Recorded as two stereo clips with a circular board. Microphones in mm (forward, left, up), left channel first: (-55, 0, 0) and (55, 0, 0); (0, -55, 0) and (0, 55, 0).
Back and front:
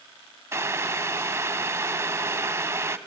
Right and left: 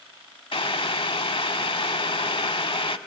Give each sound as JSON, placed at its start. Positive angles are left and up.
{"t": 0.5, "sound": "boiling", "azimuth_deg": -60, "distance_m": 0.6}